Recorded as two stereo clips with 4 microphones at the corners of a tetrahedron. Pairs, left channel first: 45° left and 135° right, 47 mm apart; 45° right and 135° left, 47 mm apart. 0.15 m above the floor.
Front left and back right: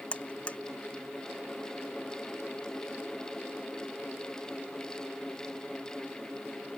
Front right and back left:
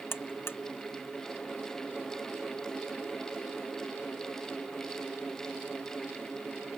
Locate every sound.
0.1 s a buzzer: 15° right